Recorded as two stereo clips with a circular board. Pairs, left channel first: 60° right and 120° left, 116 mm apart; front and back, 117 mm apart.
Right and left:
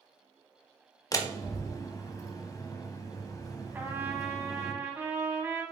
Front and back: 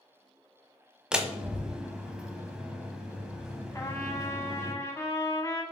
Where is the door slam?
100° right, 0.9 m.